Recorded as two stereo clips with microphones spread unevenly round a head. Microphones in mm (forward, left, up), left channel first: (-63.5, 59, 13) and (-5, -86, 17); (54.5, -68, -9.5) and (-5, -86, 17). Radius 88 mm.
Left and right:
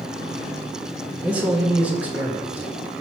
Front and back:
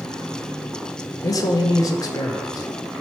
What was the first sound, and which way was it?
A man speaking, 5° left.